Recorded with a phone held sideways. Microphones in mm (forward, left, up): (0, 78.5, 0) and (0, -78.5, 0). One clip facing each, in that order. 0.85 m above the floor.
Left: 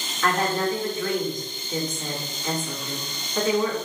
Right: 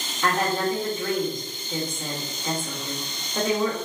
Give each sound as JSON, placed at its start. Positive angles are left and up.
{"t": 0.2, "sound": "a woman speaking", "side_deg": -30, "distance_m": 1.3}